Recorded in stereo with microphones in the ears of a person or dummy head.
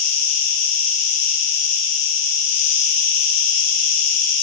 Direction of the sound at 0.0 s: 70° left (ahead or behind).